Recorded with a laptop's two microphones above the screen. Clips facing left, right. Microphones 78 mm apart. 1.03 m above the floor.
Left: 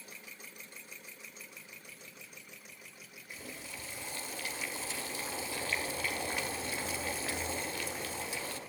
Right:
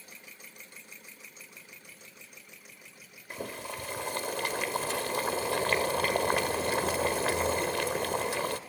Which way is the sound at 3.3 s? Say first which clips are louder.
Right 9 dB; 70° right (ahead or behind).